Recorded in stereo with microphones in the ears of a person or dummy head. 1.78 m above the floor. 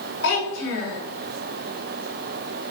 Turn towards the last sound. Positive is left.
turn(degrees=55)  # may be behind; listen again after turning